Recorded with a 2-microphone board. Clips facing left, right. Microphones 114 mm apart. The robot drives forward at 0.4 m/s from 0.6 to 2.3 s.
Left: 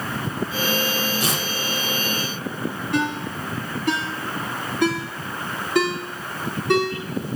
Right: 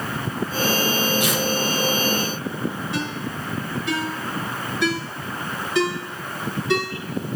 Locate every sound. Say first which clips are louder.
1.2 s tearing paper: right 3 dB; 35° left (ahead or behind), 5.5 m
2.9 s a ringtone: left 4 dB; 55° left (ahead or behind), 8 m